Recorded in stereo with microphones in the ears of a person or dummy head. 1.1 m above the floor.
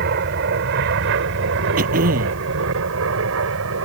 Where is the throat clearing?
55° right (ahead or behind).